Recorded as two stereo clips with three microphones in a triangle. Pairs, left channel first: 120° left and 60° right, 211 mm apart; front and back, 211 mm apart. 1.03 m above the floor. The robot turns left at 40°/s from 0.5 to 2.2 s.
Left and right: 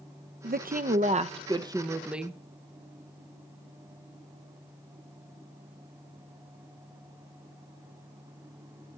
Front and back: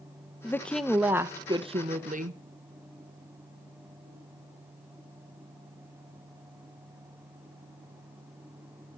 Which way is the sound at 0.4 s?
75° right.